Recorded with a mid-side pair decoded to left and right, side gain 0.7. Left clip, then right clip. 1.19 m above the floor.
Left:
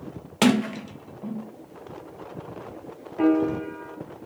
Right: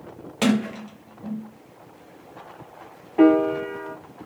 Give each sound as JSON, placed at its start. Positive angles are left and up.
{"t": 0.4, "sound": "a sliding door", "azimuth_deg": 25, "distance_m": 0.6}
{"t": 3.2, "sound": "a piano", "azimuth_deg": -45, "distance_m": 0.6}